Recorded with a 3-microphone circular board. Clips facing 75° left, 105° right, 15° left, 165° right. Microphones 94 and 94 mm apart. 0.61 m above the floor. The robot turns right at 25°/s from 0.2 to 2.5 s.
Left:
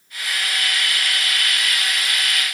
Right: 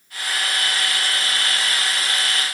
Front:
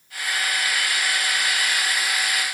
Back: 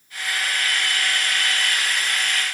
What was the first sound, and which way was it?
Only background noise.